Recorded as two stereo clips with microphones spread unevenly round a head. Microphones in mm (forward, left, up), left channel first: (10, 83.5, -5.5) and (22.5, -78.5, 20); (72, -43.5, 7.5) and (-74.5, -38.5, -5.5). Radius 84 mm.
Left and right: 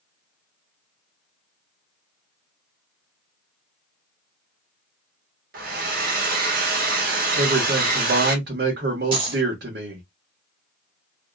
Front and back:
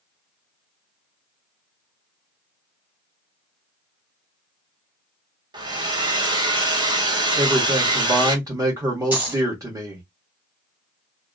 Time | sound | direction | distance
5.5 | a hair dryer | 125° right | 1.1 m
7.3 | a man speaking | 115° right | 1.0 m
9.1 | a dropped coin | 105° right | 1.2 m